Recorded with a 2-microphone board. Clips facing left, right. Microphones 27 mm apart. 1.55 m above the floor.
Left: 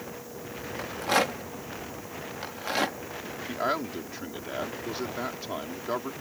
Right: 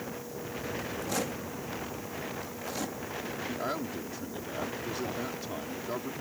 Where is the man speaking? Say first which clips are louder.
Left 7 dB; 30° left (ahead or behind).